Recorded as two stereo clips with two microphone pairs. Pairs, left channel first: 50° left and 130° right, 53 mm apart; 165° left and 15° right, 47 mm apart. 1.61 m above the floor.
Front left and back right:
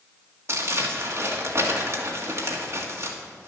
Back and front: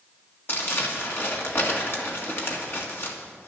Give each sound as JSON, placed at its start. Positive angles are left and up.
{"t": 0.5, "sound": "crumpling", "azimuth_deg": -160, "distance_m": 1.7}